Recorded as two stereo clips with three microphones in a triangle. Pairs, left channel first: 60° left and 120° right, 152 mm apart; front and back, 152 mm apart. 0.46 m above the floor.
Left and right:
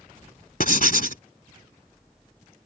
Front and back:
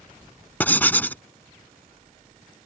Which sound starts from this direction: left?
Writing, at 0.6 s.